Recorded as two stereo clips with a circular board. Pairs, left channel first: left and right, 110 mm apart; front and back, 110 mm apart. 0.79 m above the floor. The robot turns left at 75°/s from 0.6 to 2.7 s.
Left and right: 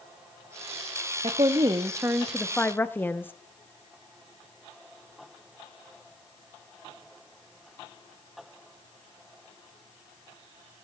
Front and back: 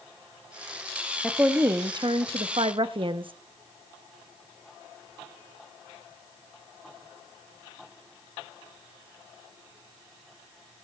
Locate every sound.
1.2 s a woman speaking: 90° right, 0.9 m; by 3.3 s 160° left, 0.9 m